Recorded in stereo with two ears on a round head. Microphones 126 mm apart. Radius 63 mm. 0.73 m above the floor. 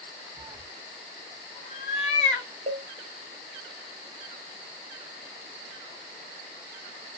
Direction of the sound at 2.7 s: 40° right (ahead or behind).